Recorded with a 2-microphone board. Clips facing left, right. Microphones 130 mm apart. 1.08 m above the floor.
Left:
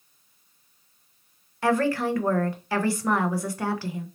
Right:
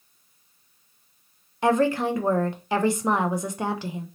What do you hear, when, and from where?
1.6 s a woman speaking: 20° right (ahead or behind), 0.6 m